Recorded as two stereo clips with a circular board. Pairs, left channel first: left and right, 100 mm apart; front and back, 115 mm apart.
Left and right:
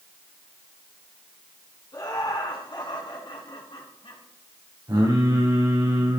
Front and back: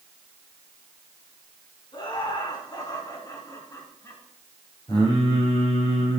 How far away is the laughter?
About 3.5 m.